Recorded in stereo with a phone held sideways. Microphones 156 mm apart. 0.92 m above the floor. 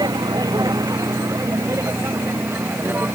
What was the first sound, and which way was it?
A vehicle, 25° right (ahead or behind).